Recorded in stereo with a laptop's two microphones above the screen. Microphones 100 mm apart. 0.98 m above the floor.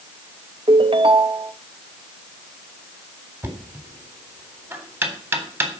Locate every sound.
0.7 s a ringtone: 60° right (ahead or behind), 0.7 m
3.4 s knocking: 20° right (ahead or behind), 3.5 m